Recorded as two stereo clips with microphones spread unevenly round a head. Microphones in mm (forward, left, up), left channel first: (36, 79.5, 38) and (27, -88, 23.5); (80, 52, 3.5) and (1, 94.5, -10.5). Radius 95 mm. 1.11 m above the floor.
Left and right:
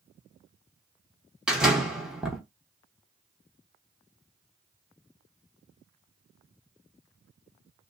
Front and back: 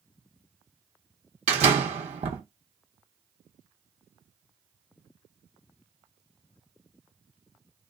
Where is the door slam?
Straight behind, 0.6 m.